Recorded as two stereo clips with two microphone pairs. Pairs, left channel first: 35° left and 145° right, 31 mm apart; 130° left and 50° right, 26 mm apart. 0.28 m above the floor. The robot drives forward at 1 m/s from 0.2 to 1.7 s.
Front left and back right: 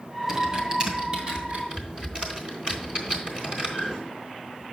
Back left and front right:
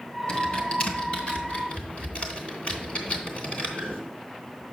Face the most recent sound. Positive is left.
turn(degrees=170)